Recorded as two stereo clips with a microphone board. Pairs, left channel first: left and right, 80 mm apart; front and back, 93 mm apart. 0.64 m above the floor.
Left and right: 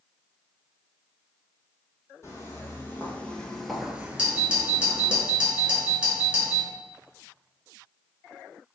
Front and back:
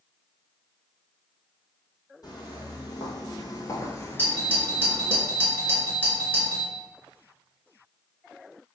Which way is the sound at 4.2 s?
30° right.